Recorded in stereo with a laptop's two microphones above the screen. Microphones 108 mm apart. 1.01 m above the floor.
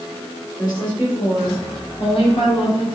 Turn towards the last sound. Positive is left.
turn(degrees=70)  # may be behind; listen again after turning